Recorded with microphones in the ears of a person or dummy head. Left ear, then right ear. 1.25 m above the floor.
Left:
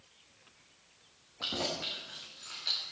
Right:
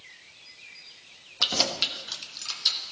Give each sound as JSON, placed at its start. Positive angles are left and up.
{"t": 1.4, "sound": "keys jangling", "side_deg": -80, "distance_m": 1.4}